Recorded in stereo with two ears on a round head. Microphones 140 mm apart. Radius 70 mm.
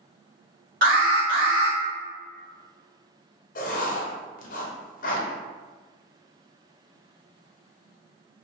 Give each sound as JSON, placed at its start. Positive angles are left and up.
{"t": 0.8, "sound": "an alarm", "side_deg": -55, "distance_m": 1.7}
{"t": 3.5, "sound": "writing", "side_deg": 55, "distance_m": 0.6}